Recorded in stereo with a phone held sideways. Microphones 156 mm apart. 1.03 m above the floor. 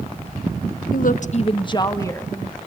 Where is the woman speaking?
65° left (ahead or behind), 0.8 m; by 2.6 s 10° left (ahead or behind), 1.9 m.